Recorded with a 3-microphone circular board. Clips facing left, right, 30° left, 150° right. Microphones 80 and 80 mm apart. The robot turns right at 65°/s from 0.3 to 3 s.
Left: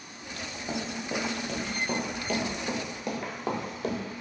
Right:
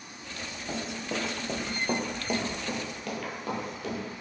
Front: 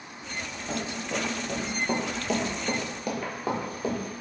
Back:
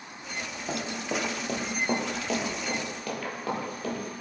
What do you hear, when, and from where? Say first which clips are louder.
0.7 s running footsteps: left 1 dB, even; 155° left, 1.9 m; by 4.0 s 95° left, 1.7 m